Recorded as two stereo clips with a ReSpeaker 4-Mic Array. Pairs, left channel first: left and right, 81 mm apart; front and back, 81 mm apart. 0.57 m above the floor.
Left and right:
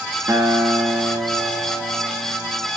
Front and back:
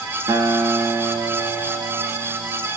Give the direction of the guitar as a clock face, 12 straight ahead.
5 o'clock.